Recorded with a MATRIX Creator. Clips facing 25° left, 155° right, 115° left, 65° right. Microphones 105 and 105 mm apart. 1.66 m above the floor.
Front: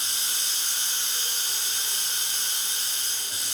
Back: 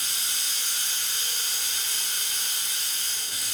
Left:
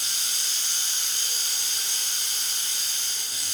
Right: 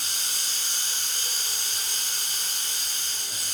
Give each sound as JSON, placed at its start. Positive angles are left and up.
{"t": 0.0, "sound": "running water", "azimuth_deg": -35, "distance_m": 2.5}